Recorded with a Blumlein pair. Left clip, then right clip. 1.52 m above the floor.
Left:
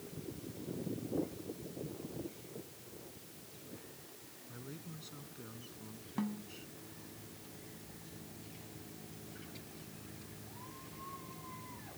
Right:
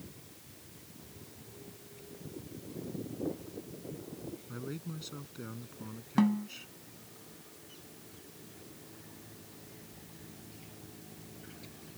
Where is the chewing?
I don't hear chewing.